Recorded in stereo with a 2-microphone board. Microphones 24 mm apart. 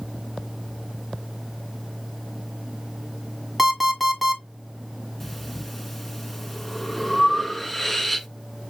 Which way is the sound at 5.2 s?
5° left (ahead or behind).